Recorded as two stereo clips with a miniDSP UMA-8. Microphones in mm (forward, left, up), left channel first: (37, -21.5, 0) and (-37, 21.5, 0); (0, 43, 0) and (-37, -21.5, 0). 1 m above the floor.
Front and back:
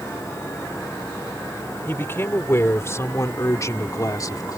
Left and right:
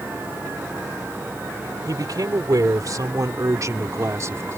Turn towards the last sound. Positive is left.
turn(degrees=-70)